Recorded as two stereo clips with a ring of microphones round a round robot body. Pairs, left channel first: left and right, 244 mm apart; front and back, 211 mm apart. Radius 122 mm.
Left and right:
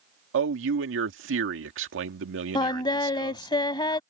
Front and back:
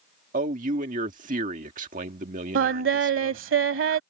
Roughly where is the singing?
Behind.